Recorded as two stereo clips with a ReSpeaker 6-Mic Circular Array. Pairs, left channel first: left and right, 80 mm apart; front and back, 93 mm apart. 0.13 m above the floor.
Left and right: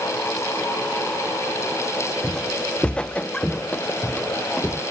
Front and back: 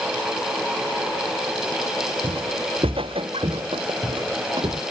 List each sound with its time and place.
2.2 s footsteps: 165° left